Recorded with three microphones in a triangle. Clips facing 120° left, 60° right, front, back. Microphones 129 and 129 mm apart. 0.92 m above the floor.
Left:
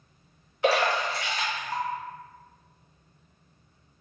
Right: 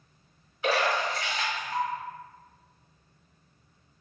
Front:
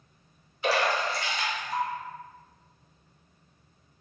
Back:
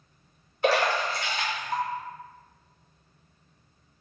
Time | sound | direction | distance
0.6 | a splash | 140° left | 1.1 m